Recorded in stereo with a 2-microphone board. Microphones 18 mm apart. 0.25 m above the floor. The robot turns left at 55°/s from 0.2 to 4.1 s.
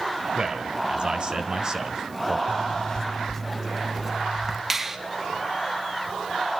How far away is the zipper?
About 1.6 m.